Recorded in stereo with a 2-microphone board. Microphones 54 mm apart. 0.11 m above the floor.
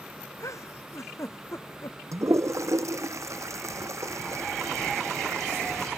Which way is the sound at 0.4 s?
75° left (ahead or behind).